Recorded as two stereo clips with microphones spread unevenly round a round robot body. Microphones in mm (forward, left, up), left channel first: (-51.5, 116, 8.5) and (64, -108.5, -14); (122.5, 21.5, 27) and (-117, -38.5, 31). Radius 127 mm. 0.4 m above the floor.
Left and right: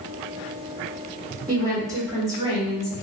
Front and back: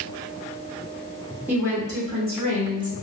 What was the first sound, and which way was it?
A woman speaking, 90° right.